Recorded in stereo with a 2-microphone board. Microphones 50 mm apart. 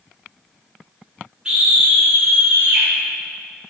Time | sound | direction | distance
1.4 | a scream | 20° right (ahead or behind) | 1.4 m